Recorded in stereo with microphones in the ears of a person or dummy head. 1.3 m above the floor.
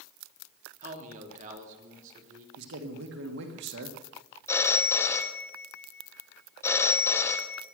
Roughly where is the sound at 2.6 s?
Right.